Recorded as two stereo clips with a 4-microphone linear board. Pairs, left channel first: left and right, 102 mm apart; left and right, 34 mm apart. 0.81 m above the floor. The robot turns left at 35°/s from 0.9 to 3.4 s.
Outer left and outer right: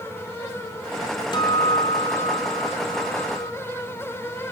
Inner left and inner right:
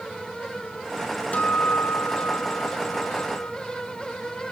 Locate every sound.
1.3 s a guitar: 135° left, 2.5 m; by 3.5 s 65° left, 2.5 m